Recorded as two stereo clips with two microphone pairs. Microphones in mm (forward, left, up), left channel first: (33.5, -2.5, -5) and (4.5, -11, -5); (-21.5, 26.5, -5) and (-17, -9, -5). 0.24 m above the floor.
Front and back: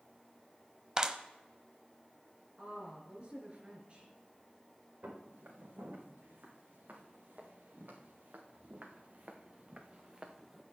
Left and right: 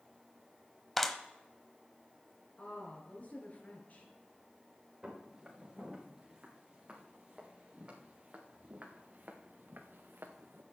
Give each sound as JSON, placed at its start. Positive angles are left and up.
{"t": 1.0, "sound": "a clap", "azimuth_deg": 170, "distance_m": 0.9}
{"t": 2.6, "sound": "a woman speaking", "azimuth_deg": 145, "distance_m": 3.5}
{"t": 5.0, "sound": "footsteps", "azimuth_deg": -155, "distance_m": 5.5}